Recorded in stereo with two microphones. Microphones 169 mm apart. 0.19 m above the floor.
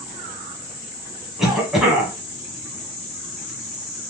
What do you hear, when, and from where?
1.4 s a cough: centre (ahead or behind), 1.3 m